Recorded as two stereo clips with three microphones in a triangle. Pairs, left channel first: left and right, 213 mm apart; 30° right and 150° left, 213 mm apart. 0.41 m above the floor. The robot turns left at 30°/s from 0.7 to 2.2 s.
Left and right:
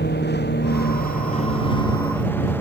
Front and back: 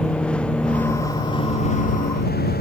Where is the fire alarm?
No fire alarm in this recording.